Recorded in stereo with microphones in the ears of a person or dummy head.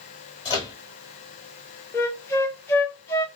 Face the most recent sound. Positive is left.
turn(degrees=15)  # may be behind; listen again after turning